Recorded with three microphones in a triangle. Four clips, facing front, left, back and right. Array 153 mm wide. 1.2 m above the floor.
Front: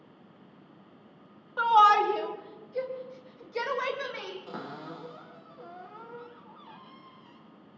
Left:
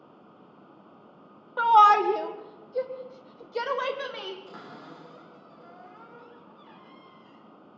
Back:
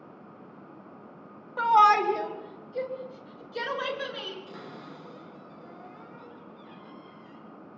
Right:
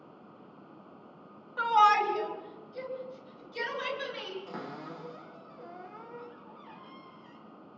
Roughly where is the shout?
Left.